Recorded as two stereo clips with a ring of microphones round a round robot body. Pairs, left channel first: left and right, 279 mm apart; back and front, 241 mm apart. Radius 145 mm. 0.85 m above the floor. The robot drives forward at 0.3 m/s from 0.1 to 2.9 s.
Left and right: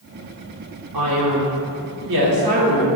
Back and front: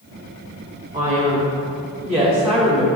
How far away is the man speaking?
About 2 m.